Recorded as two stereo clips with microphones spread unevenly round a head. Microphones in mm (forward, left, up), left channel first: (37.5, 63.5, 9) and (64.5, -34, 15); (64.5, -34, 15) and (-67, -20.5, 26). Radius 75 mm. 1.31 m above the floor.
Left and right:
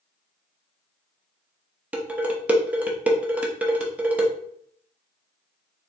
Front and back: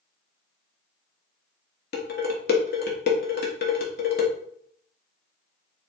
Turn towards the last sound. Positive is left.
turn(degrees=0)